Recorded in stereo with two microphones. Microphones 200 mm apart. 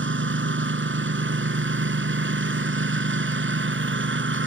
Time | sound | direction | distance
0.0 | a lawn mower | 75° right (ahead or behind) | ?